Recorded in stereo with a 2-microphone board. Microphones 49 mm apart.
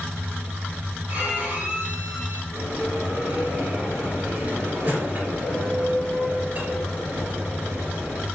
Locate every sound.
1.1 s a violin: 30° right (ahead or behind), 2 m
2.5 s a bell: 35° right (ahead or behind), 3 m